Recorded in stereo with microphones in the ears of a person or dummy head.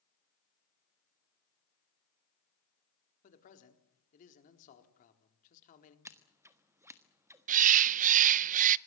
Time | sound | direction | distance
3.2 | a man speaking | 40° left (ahead or behind) | 4 m
6.0 | scissors | 10° right (ahead or behind) | 1.4 m
7.5 | a bird | 40° right (ahead or behind) | 0.5 m